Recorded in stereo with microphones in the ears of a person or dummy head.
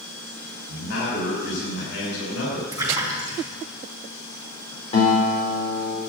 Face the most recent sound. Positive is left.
turn(degrees=40)  # may be behind; listen again after turning